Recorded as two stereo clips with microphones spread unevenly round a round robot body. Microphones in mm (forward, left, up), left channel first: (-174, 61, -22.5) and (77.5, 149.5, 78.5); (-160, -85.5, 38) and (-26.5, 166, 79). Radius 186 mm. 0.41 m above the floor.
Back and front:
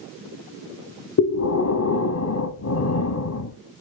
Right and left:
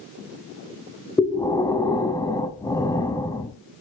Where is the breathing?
160° left, 1.2 m.